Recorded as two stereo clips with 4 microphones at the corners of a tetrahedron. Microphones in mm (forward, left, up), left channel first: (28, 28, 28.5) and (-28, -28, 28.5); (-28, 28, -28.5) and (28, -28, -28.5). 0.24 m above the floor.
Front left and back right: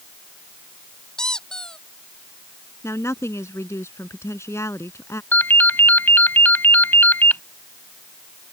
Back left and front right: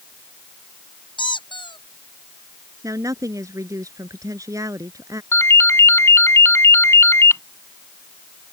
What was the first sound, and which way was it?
A squeak, 125° left.